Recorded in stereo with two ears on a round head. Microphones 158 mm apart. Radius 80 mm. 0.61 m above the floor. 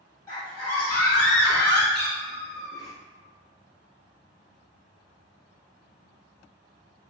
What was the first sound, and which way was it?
A scream, 15° left (ahead or behind).